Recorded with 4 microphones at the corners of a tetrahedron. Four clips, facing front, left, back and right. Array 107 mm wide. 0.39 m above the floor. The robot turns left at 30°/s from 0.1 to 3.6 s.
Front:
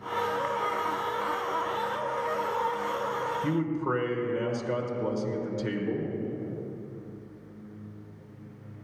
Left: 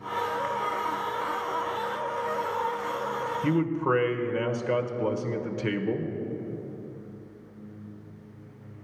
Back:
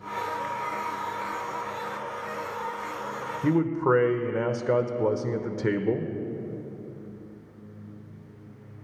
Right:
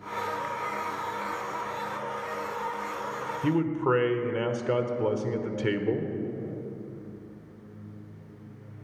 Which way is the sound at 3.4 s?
170° right.